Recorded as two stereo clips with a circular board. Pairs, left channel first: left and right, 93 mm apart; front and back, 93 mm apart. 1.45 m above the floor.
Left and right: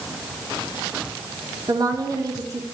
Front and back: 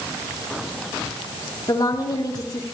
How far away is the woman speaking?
About 4.5 m.